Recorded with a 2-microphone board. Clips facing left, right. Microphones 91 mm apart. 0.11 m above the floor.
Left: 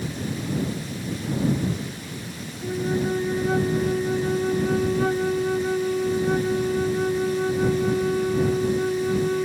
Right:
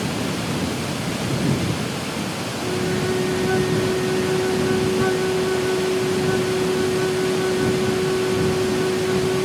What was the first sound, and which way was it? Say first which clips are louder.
Running water: right 5 dB; 85° right.